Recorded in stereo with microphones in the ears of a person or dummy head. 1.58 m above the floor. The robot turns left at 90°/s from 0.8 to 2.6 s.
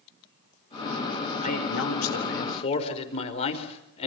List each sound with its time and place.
1.4 s a man speaking: 140° left, 4.5 m; by 4.1 s 35° left, 4.5 m